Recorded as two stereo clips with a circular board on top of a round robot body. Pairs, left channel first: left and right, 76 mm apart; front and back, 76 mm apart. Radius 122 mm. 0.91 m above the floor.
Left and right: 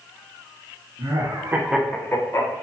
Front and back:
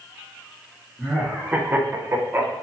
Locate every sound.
1.0 s laughter: 100° right, 1.0 m; by 2.5 s 120° left, 1.0 m